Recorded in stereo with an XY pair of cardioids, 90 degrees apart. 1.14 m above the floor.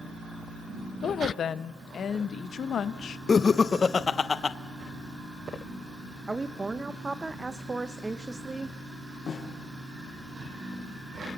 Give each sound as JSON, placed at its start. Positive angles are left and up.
{"t": 1.0, "sound": "a woman speaking", "azimuth_deg": 60, "distance_m": 0.9}
{"t": 3.3, "sound": "laughter", "azimuth_deg": 45, "distance_m": 0.7}
{"t": 6.3, "sound": "a woman speaking", "azimuth_deg": -20, "distance_m": 0.8}
{"t": 9.3, "sound": "a snare drum", "azimuth_deg": 65, "distance_m": 4.0}